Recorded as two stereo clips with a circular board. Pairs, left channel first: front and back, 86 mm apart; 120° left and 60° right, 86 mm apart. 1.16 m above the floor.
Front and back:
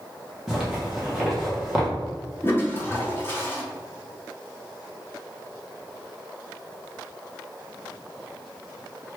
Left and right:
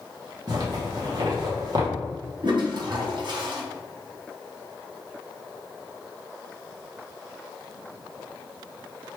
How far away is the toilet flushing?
About 0.9 m.